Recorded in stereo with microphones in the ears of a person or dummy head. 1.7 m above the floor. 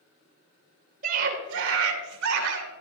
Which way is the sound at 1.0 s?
50° right (ahead or behind).